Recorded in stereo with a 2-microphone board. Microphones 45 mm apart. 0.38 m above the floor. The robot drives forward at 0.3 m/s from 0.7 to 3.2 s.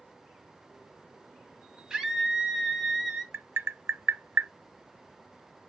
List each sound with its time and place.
1.9 s a scream: 15° right (ahead or behind), 3 m
3.3 s tapping: 75° right (ahead or behind), 0.7 m